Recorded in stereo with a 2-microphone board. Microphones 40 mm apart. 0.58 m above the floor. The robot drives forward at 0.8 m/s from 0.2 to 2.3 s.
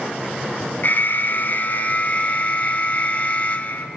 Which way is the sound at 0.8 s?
50° left (ahead or behind).